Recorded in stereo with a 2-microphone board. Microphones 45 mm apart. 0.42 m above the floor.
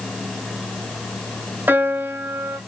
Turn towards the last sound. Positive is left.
turn(degrees=-45)  # may be behind; listen again after turning